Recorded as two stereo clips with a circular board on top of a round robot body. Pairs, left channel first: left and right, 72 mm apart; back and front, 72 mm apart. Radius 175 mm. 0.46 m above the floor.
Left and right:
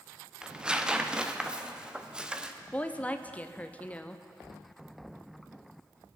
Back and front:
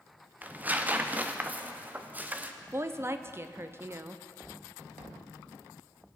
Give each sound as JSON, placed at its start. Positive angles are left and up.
{"t": 0.4, "sound": "tearing paper", "azimuth_deg": -25, "distance_m": 1.0}
{"t": 2.7, "sound": "a woman speaking", "azimuth_deg": 30, "distance_m": 0.9}